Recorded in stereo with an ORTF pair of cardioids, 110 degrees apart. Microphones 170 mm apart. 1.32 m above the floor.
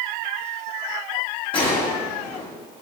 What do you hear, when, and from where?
1.5 s a gunshot: 30° left, 3 m